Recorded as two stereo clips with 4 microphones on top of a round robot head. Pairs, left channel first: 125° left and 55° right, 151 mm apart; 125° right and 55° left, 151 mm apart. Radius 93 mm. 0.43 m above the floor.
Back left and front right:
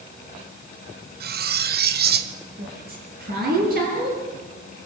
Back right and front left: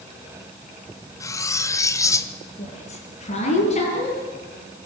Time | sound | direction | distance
1.2 | cutlery clinking | 55° right | 1.4 m
2.6 | a woman speaking | 80° right | 9 m